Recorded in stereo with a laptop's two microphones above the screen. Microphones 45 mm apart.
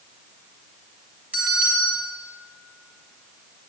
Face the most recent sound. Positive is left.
turn(degrees=-30)  # may be behind; listen again after turning